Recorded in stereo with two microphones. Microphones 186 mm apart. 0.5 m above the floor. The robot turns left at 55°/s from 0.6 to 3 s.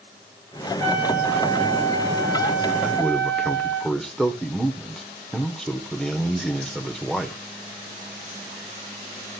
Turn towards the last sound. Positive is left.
turn(degrees=5)  # may be behind; listen again after turning